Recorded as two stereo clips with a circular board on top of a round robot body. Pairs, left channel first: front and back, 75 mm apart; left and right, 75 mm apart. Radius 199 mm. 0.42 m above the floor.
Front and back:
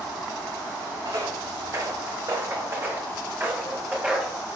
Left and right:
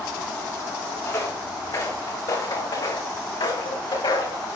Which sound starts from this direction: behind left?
Footsteps, at 1.1 s.